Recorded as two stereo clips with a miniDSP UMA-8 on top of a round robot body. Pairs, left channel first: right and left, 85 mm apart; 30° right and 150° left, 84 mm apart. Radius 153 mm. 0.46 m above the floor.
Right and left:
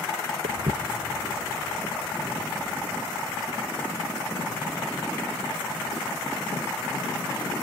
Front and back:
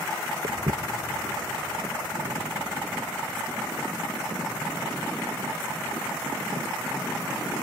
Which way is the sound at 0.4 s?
100° left.